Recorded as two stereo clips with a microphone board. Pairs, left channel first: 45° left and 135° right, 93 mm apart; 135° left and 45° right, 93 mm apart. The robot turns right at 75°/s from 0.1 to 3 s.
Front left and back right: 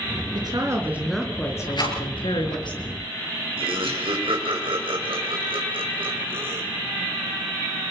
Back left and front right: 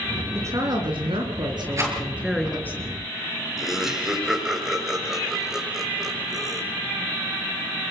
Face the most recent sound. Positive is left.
turn(degrees=-130)